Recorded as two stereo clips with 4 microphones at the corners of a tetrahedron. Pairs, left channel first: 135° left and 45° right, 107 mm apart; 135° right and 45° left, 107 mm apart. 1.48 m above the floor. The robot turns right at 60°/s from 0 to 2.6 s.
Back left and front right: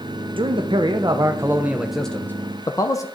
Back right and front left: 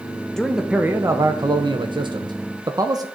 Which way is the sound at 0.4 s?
50° right.